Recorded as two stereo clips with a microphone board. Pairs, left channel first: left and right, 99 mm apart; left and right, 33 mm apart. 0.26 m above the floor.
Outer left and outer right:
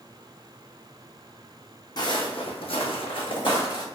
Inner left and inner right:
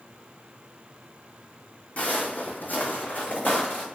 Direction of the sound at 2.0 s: 45° left (ahead or behind).